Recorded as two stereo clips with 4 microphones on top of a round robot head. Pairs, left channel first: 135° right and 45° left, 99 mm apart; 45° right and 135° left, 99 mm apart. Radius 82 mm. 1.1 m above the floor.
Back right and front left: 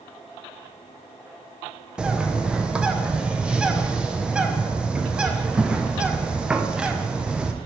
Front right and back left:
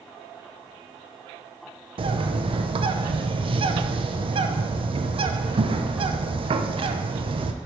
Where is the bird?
120° left, 0.5 m.